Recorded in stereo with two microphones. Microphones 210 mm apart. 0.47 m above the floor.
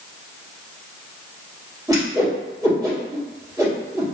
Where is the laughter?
No laughter in this recording.